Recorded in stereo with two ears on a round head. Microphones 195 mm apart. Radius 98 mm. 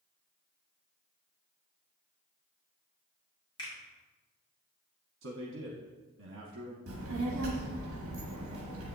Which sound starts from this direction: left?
A finger snap, at 3.6 s.